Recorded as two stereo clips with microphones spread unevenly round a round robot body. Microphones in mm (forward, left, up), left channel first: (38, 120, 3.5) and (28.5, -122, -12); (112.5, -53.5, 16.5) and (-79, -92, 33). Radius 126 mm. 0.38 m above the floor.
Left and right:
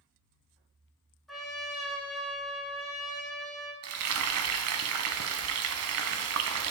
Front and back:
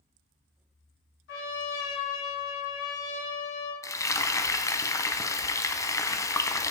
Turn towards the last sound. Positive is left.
turn(degrees=-65)